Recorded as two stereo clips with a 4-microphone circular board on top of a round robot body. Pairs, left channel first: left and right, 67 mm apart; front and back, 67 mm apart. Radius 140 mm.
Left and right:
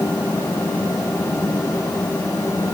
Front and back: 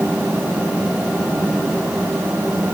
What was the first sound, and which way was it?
Only background noise.